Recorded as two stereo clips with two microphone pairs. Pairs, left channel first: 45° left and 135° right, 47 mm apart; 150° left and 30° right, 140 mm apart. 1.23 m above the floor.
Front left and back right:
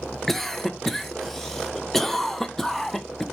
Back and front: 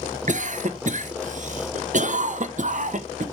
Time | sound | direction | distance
0.3 | a cough | 40° right | 1.2 m